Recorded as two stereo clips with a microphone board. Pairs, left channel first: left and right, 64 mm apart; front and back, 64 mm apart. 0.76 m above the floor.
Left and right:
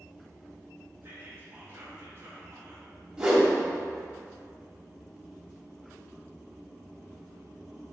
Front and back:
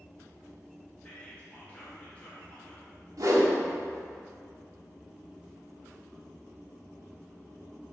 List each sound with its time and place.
1.0 s whispering: 60° right, 1.2 m
3.2 s a whoosh: 160° right, 1.5 m